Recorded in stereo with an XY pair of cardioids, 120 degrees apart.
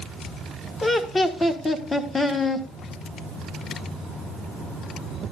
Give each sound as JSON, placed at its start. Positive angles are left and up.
{"t": 0.8, "sound": "laughter", "azimuth_deg": 20, "distance_m": 1.3}